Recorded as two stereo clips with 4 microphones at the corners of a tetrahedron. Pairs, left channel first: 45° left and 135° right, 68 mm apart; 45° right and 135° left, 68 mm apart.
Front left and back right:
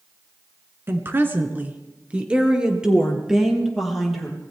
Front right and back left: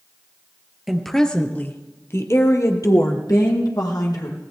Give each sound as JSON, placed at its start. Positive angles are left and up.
{"t": 0.9, "sound": "a woman speaking", "azimuth_deg": -140, "distance_m": 1.9}